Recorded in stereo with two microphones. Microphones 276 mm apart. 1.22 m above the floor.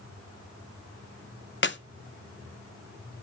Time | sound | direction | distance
1.6 | a clap | 40° left (ahead or behind) | 0.8 m